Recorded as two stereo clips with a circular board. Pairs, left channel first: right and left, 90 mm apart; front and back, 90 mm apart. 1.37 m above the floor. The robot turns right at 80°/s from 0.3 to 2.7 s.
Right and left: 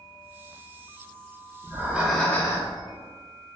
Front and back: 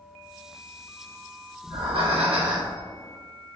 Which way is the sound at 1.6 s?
145° left.